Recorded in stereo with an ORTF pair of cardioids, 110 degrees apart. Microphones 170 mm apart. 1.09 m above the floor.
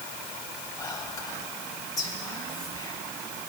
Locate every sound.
0.8 s whispering: 20° left, 2.5 m